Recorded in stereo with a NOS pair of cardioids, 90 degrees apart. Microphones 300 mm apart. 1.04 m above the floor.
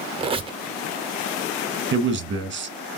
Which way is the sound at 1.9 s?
40° right.